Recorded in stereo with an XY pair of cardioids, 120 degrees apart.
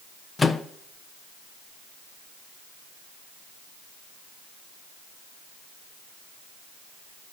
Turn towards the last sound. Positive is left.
turn(degrees=25)